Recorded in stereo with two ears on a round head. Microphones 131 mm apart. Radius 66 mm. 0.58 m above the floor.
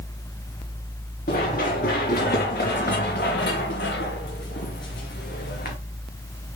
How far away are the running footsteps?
About 4 m.